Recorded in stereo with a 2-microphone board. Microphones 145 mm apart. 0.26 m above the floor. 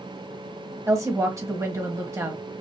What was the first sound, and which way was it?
A woman speaking, 20° right (ahead or behind).